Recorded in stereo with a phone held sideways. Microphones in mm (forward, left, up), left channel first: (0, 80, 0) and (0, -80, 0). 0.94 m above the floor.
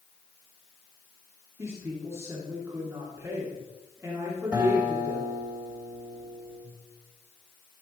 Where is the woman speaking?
15° right (ahead or behind), 2.5 m.